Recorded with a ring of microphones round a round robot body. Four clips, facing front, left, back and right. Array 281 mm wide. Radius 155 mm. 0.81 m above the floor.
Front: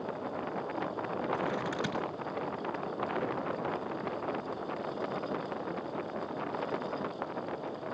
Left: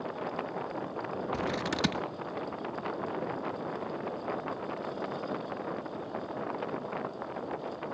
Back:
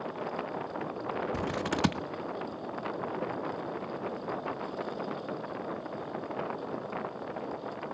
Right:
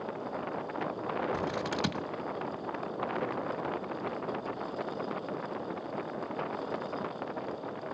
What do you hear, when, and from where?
1.3 s scissors: 165° left, 1.0 m